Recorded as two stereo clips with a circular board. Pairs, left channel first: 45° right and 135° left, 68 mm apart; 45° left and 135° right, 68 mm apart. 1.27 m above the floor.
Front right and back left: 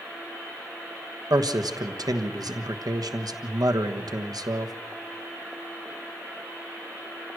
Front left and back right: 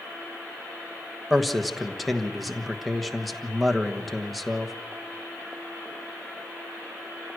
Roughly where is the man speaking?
Behind left.